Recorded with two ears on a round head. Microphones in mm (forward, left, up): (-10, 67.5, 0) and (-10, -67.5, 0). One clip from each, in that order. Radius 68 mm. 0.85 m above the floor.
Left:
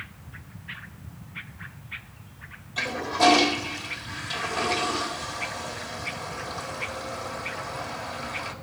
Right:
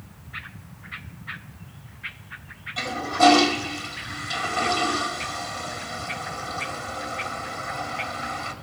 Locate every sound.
2.8 s a toilet flushing: 10° left (ahead or behind), 1.7 m